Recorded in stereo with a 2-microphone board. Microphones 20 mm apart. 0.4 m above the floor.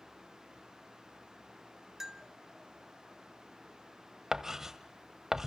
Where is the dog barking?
I don't hear a dog barking.